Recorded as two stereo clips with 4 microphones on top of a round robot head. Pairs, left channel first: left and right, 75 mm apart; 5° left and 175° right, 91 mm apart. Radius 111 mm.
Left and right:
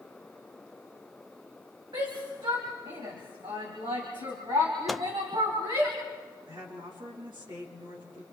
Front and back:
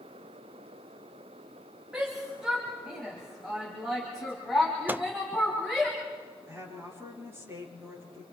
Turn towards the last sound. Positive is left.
turn(degrees=-110)